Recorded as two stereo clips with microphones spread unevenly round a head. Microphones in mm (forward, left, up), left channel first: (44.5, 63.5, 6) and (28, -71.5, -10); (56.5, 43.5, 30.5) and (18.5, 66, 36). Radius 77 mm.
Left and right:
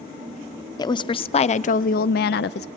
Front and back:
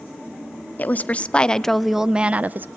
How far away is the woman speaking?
About 0.9 m.